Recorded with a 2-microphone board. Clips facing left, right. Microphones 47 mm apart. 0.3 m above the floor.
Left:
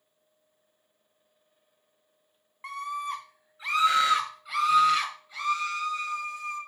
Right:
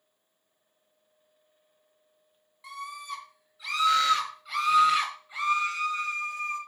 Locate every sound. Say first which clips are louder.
2.6 s a scream: left 5 dB; 45° left (ahead or behind), 3 m; by 6.6 s 45° right (ahead or behind), 2.5 m